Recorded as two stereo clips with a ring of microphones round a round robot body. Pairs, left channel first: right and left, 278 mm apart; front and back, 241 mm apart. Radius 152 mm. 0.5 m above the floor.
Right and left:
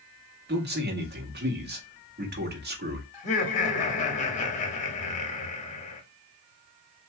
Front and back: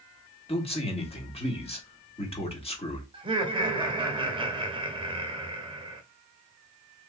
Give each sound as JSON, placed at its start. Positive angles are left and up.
{"t": 0.5, "sound": "a man speaking", "azimuth_deg": 55, "distance_m": 1.6}
{"t": 3.1, "sound": "laughter", "azimuth_deg": -130, "distance_m": 1.0}